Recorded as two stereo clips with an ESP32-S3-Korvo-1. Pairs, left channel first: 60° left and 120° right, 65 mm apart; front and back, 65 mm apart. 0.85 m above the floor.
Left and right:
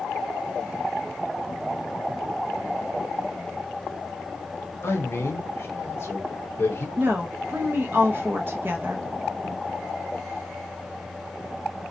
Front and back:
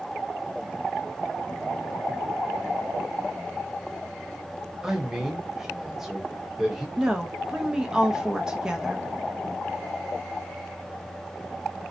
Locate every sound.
4.8 s a man speaking: 100° left, 0.7 m
7.0 s a woman speaking: 110° right, 0.5 m